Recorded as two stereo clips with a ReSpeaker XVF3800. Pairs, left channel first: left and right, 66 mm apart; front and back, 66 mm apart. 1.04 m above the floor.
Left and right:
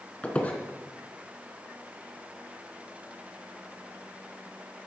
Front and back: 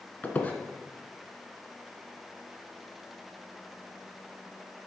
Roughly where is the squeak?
Ahead left.